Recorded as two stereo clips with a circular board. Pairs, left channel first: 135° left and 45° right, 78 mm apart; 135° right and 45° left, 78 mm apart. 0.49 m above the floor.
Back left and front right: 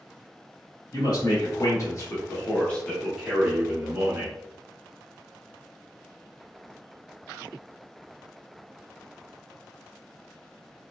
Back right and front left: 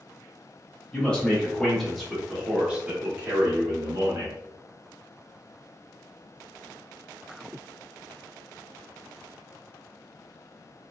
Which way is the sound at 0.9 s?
150° left.